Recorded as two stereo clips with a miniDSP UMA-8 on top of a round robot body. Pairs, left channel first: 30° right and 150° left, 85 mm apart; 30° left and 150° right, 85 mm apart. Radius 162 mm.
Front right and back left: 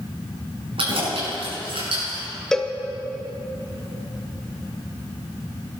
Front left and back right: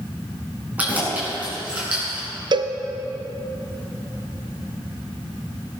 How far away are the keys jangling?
About 5 m.